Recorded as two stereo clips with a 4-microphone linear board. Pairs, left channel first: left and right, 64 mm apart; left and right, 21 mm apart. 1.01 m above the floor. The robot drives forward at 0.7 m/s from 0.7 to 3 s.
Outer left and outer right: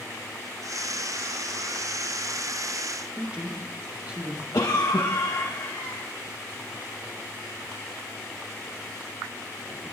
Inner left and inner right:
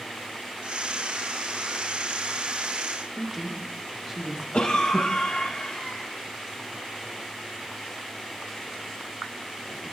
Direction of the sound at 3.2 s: 15° right (ahead or behind).